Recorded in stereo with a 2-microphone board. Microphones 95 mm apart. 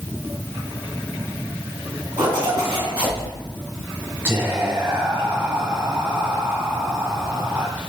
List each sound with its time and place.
2.2 s a zipper: 60° right (ahead or behind), 2 m
4.2 s whispering: 25° right (ahead or behind), 1.1 m